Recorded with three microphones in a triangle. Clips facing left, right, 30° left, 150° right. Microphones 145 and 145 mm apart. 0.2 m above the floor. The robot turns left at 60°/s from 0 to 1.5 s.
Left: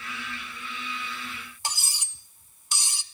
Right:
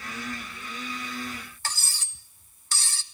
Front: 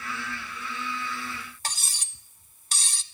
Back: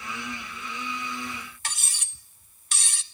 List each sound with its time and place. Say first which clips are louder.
1.6 s cutlery clinking: left 4 dB, front 2 dB; 30° left, 0.6 m